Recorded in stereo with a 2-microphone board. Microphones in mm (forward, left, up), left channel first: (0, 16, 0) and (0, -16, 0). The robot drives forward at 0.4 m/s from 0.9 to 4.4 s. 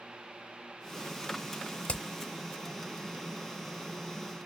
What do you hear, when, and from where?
1.9 s hammering: 35° left (ahead or behind), 0.7 m